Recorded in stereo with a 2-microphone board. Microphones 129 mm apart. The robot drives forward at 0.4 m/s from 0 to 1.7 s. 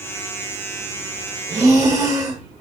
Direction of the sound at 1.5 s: 25° right (ahead or behind).